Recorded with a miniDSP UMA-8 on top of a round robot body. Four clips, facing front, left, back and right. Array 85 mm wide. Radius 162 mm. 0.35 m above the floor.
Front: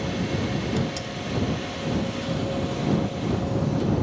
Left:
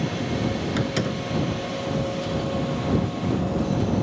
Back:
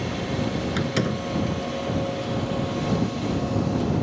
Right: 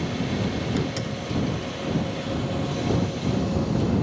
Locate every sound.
0.8 s a door slam: 150° left